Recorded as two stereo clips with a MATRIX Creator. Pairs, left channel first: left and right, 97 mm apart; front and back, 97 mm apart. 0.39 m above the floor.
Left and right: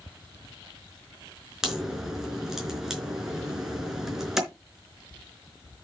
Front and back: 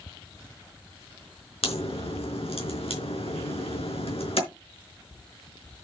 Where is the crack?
5° right, 4.5 m.